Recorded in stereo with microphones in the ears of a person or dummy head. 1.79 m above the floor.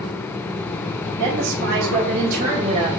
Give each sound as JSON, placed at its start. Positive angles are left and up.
{"t": 1.2, "sound": "a woman speaking", "side_deg": -80, "distance_m": 3.5}